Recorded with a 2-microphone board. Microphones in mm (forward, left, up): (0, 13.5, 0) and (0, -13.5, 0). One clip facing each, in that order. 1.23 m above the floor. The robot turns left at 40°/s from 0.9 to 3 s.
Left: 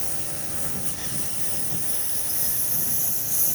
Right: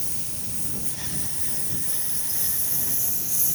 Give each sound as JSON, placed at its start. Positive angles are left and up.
{"t": 0.0, "sound": "a lawn mower", "azimuth_deg": 105}